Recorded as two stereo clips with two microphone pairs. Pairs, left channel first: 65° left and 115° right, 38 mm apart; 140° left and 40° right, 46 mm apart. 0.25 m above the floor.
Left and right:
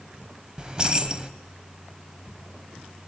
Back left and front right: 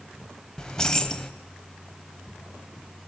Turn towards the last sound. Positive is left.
turn(degrees=-160)